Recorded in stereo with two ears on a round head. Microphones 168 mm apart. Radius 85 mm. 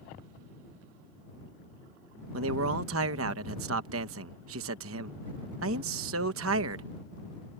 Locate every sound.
2.3 s a man speaking: 80° right